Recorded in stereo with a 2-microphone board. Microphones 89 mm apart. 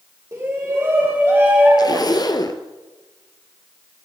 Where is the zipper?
45° left (ahead or behind), 1.1 m.